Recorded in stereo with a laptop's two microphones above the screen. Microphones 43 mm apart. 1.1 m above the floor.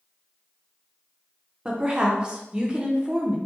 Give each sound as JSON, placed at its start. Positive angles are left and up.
{"t": 1.6, "sound": "a woman speaking", "side_deg": -25, "distance_m": 0.5}